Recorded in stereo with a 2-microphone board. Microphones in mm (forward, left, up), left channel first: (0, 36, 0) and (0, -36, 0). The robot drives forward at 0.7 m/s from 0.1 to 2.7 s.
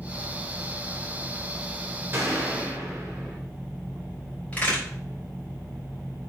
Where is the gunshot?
35° right (ahead or behind), 2.5 m.